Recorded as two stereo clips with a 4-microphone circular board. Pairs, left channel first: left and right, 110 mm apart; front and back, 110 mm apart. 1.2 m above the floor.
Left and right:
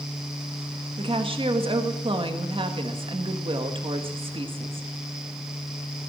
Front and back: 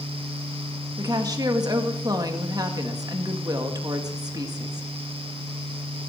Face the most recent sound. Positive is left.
turn(degrees=-125)